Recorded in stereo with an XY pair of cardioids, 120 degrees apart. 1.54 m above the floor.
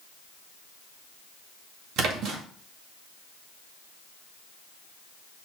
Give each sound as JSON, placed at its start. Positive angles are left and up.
{"t": 2.0, "sound": "a splash", "azimuth_deg": -70, "distance_m": 2.0}